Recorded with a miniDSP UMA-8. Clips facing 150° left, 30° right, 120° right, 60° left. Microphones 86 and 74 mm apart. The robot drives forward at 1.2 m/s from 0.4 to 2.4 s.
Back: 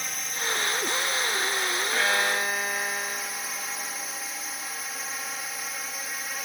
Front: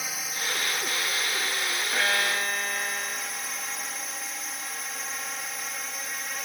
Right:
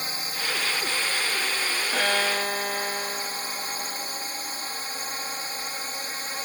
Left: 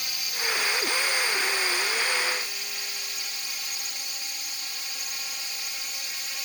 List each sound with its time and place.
0.0 s a drone: 110° right; by 6.5 s 120° right
1.9 s a violin: 120° right; by 4.8 s 135° right